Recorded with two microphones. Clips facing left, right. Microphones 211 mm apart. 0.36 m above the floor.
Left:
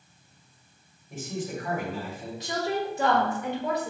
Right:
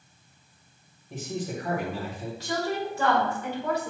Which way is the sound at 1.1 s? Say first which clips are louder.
Right 1 dB; 20° right (ahead or behind).